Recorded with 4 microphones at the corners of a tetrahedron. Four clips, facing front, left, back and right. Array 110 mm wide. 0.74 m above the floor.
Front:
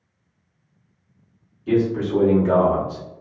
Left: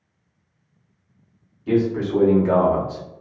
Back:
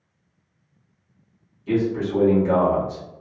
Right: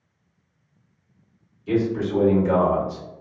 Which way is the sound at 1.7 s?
75° left.